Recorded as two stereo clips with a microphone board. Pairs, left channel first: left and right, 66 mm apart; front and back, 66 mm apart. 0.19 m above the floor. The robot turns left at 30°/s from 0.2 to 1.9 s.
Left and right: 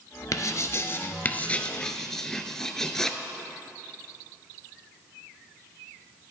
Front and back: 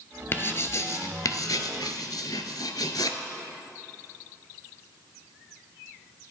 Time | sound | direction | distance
0.3 | writing | 55° left | 0.5 m